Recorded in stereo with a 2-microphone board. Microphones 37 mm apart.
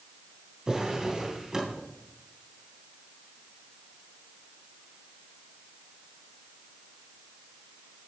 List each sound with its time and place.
0.7 s a drawer: 20° right (ahead or behind), 3 m